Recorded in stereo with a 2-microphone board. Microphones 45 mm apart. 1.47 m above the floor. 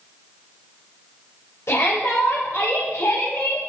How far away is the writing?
I don't hear writing.